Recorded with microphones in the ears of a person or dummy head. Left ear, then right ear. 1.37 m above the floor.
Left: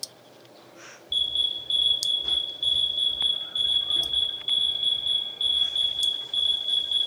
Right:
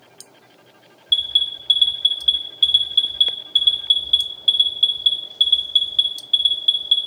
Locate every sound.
1.1 s an alarm: 45° right (ahead or behind), 1.7 m